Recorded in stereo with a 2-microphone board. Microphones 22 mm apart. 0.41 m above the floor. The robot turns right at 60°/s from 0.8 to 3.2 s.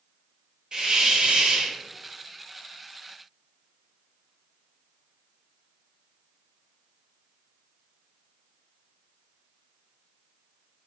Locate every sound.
0.7 s a hiss: 130° right, 0.7 m; by 1.8 s 75° right, 0.7 m